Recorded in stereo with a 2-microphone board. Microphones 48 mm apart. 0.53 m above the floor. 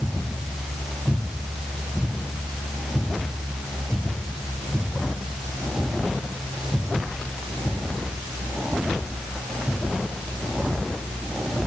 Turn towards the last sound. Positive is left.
No sound to turn to.